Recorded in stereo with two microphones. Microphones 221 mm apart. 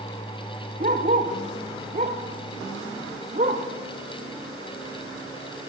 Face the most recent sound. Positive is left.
turn(degrees=-35)  # may be behind; listen again after turning